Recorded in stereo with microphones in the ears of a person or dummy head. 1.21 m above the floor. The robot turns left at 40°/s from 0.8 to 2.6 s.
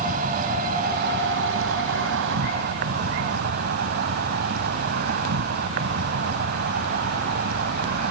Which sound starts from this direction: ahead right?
An insect, at 0.0 s.